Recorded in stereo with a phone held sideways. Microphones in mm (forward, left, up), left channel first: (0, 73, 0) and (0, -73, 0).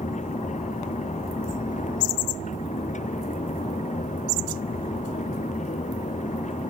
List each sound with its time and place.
0.0 s a fan: 55° left (ahead or behind)